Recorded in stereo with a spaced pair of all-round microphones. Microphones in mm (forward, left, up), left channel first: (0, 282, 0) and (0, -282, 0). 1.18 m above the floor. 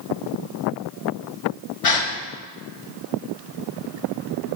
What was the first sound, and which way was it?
A gasp, 75° left (ahead or behind).